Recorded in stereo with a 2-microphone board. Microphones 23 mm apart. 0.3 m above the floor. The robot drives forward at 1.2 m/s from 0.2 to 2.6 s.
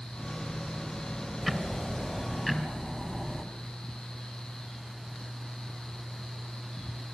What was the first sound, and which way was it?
Ticking, 5° right (ahead or behind).